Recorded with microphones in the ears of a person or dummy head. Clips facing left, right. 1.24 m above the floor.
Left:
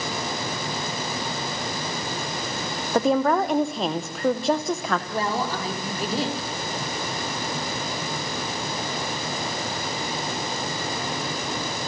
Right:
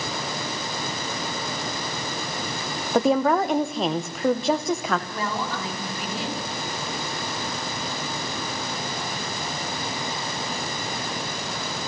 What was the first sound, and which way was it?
A woman speaking, 5° right (ahead or behind).